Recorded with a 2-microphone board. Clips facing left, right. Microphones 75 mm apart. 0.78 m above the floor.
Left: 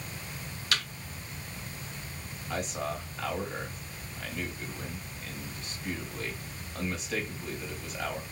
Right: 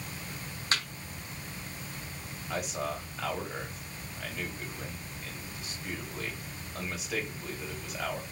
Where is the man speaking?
5° right (ahead or behind), 3.5 m.